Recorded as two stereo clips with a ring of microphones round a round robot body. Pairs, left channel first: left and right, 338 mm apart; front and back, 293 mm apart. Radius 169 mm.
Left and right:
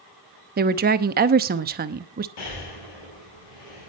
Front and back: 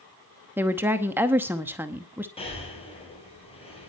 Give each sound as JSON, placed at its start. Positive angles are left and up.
{"t": 0.6, "sound": "a woman speaking", "azimuth_deg": -105, "distance_m": 0.8}
{"t": 2.4, "sound": "breathing", "azimuth_deg": 70, "distance_m": 5.0}